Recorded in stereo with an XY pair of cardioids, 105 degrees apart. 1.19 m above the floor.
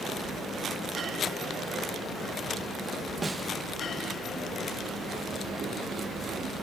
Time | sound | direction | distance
3.2 | a snare drum | 20° right | 1.1 m